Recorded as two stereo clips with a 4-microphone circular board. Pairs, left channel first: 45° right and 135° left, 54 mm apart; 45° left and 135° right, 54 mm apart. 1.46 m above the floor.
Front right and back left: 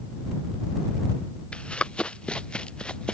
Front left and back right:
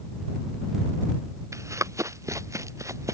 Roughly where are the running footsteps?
Behind right.